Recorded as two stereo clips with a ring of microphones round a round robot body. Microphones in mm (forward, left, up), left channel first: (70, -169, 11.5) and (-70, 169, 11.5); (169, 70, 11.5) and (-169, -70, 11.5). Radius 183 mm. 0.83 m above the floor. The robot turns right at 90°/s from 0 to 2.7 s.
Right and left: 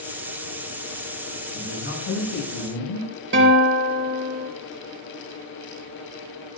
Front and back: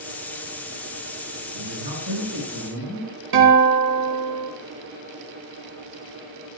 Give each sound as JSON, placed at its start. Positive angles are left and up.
{"t": 1.5, "sound": "a man speaking", "azimuth_deg": -160, "distance_m": 7.5}
{"t": 3.3, "sound": "a guitar", "azimuth_deg": 170, "distance_m": 4.0}